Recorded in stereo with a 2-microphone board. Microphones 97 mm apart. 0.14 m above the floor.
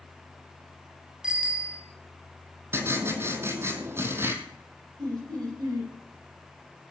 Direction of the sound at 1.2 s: 10° right (ahead or behind).